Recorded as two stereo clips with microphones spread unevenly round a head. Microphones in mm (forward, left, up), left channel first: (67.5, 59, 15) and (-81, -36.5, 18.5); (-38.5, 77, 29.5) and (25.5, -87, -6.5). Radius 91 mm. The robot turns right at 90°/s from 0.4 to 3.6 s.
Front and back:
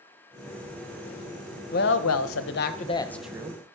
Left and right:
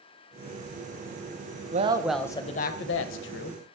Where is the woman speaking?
15° right, 0.5 m; by 3.6 s 155° left, 0.5 m.